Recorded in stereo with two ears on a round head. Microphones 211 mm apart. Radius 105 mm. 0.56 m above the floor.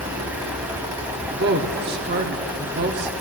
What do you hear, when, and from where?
0.0 s running water: 10° right (ahead or behind), 2.0 m
1.3 s a woman speaking: 45° right (ahead or behind), 1.1 m